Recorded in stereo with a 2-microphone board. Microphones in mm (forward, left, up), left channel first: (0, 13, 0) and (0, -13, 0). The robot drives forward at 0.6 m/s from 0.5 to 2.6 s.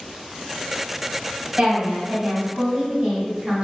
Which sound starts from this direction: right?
A woman speaking, at 1.6 s.